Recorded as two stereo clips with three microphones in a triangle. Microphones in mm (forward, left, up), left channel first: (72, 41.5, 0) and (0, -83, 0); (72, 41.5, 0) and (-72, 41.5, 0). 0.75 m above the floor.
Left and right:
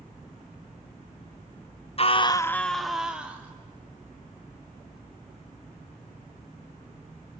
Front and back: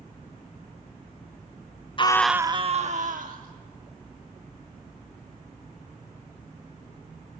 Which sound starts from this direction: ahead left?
A scream, at 2.0 s.